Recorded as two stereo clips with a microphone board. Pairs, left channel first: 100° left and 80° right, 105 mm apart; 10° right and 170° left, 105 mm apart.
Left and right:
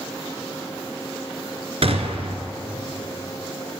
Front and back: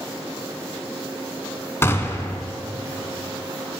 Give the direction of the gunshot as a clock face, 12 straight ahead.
3 o'clock.